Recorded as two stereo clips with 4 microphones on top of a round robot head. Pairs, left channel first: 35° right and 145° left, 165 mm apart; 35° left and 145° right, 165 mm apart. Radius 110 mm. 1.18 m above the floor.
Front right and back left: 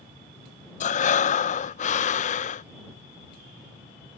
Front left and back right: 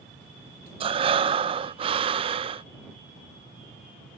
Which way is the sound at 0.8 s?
85° right.